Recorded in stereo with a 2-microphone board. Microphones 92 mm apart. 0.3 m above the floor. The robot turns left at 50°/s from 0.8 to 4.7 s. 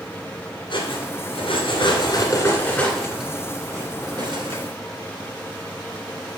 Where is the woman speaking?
I don't hear a woman speaking.